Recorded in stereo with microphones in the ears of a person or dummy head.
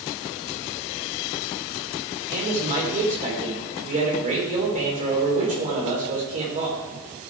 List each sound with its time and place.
2.3 s a man speaking: 40° right (ahead or behind), 3.5 m